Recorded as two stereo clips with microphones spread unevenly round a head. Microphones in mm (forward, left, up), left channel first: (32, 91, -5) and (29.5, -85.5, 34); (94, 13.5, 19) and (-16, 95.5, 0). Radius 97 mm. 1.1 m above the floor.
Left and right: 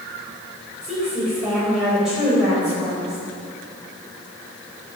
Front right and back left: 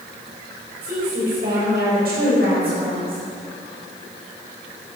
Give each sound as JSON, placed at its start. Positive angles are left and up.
{"t": 0.8, "sound": "a woman speaking", "azimuth_deg": -175, "distance_m": 5.0}